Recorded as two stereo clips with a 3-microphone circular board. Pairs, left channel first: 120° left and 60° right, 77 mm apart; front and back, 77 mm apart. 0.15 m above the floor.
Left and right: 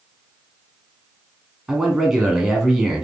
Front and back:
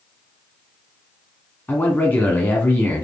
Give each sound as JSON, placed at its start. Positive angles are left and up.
{"t": 1.7, "sound": "a man speaking", "azimuth_deg": 20, "distance_m": 1.2}